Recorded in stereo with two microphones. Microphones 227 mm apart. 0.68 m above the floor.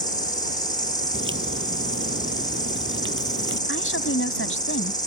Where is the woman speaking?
70° left (ahead or behind).